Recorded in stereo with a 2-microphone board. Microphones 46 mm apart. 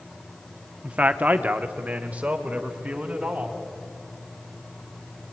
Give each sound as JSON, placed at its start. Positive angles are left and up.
{"t": 0.8, "sound": "a man speaking", "side_deg": -30, "distance_m": 1.0}